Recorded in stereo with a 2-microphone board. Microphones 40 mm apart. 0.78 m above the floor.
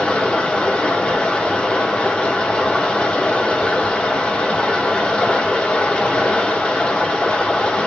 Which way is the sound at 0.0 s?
30° left (ahead or behind).